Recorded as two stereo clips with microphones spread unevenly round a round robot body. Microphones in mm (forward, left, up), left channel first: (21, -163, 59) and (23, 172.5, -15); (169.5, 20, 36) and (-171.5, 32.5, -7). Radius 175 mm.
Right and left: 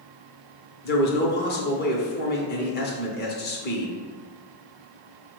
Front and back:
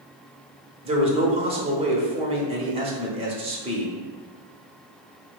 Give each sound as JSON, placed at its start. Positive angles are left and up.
{"t": 0.8, "sound": "a man speaking", "azimuth_deg": -145, "distance_m": 0.9}